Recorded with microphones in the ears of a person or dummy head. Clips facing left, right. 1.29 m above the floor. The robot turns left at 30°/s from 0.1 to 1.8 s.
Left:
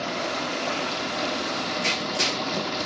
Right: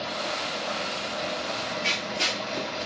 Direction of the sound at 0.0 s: 125° left.